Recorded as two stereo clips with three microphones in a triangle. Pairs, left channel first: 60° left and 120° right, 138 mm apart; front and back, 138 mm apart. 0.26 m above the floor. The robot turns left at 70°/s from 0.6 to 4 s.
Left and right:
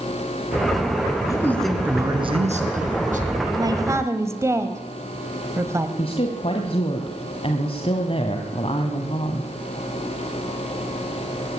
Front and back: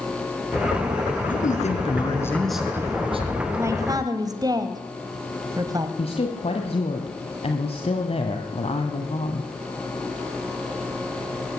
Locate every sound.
1.3 s a man speaking: straight ahead, 3.5 m; by 3.3 s 145° right, 3.5 m
3.6 s a man speaking: 135° right, 1.4 m; by 5.9 s 165° right, 1.4 m
6.0 s a woman speaking: 25° left, 2 m